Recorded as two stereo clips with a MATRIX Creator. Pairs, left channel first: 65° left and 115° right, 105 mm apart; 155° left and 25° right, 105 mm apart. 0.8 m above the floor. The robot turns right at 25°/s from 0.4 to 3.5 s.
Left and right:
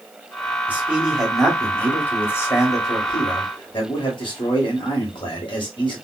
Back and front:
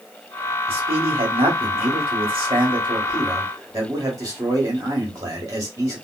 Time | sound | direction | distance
0.7 | a man speaking | 40° right | 1.6 m